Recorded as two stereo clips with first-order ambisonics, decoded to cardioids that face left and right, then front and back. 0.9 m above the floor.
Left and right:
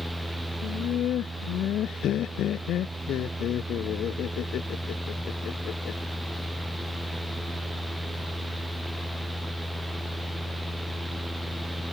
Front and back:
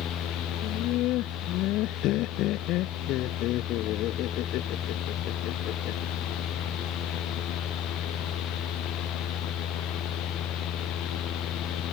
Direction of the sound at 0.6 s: 35° left.